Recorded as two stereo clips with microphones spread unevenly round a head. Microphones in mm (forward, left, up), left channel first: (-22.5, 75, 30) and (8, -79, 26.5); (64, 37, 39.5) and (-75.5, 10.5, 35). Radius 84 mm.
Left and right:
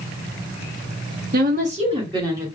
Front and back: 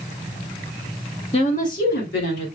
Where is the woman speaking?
45° right, 1.4 m; by 2.5 s 10° right, 2.5 m.